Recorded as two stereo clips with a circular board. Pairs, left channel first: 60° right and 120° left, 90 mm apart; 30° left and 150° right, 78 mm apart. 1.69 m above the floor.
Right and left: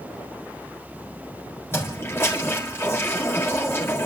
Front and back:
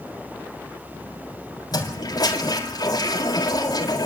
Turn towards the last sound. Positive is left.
turn(degrees=0)